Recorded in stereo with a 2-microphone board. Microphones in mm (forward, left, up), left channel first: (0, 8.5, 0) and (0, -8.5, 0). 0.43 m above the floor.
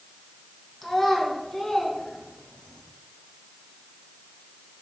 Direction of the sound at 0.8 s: 5° left (ahead or behind).